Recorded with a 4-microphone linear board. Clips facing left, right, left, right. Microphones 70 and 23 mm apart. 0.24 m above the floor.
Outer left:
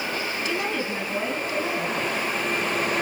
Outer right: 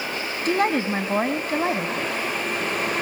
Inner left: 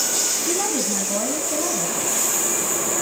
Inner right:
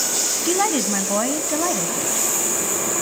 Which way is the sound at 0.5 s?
50° right (ahead or behind).